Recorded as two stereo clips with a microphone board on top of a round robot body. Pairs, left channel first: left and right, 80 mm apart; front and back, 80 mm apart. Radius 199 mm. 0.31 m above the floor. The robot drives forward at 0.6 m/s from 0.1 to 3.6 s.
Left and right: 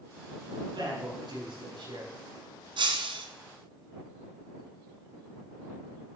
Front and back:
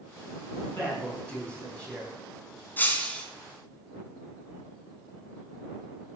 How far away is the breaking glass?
About 1.8 m.